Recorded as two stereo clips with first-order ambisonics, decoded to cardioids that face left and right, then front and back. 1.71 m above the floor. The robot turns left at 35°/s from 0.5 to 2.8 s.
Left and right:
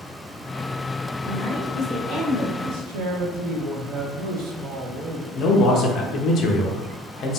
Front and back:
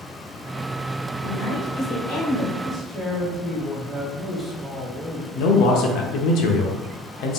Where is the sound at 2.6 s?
80° right, 0.8 m; by 5.2 s 90° right, 0.8 m.